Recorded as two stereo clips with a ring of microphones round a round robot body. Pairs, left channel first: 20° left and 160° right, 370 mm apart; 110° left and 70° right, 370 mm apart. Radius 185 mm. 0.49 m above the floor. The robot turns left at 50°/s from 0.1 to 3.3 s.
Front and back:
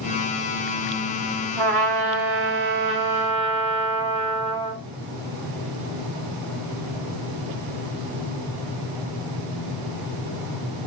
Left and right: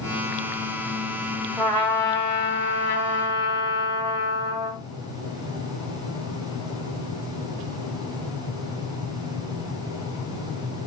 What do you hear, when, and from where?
1.6 s a trumpet: 165° right, 1.0 m; by 4.8 s 110° left, 1.0 m